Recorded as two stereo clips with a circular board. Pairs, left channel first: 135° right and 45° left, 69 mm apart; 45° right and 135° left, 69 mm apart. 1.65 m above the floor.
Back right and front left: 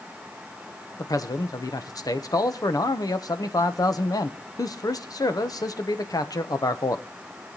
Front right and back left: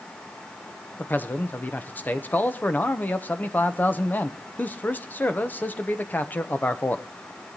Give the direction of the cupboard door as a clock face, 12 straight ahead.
No cupboard door in this recording.